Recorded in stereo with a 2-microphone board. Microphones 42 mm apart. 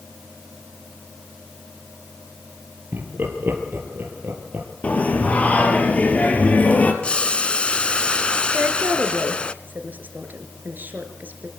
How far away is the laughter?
About 3.5 m.